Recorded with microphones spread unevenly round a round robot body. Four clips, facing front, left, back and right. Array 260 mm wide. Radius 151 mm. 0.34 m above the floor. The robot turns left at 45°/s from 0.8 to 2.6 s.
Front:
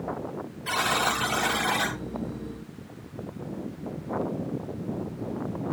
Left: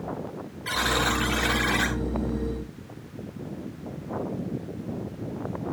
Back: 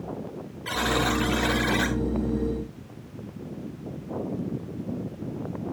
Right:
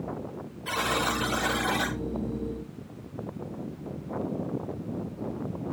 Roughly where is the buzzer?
Behind right.